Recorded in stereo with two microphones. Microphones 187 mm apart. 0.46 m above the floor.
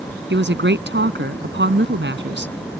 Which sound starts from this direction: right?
A woman speaking, at 0.3 s.